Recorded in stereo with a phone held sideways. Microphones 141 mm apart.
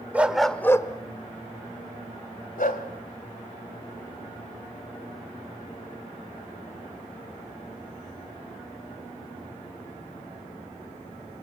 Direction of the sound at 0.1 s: 10° right (ahead or behind).